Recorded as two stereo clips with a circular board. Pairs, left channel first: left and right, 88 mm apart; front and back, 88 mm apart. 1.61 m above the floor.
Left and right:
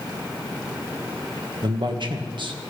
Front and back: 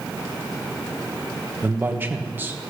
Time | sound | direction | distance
1.6 | a man speaking | 115° right | 1.6 m